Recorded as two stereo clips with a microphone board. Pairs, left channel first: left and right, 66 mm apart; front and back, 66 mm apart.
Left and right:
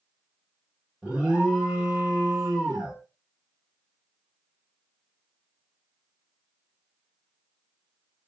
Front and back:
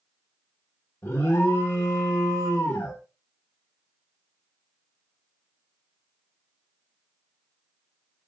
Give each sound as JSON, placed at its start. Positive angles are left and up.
{"t": 1.0, "sound": "an alarm", "azimuth_deg": -20, "distance_m": 1.4}